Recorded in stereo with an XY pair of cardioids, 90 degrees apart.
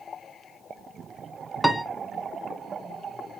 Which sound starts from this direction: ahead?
A piano, at 1.6 s.